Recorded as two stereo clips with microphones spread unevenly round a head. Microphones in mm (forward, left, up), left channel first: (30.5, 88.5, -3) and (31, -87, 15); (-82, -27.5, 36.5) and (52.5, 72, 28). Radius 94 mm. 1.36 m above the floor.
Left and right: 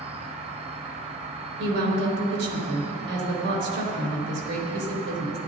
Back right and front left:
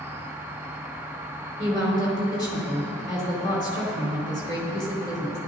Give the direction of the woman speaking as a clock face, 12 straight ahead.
2 o'clock.